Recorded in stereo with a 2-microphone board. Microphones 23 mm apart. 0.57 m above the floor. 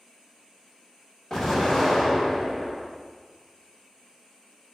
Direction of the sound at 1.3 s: 25° left (ahead or behind).